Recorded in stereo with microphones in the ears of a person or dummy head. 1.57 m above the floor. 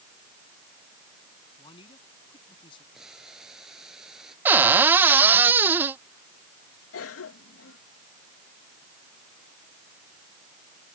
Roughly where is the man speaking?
Left.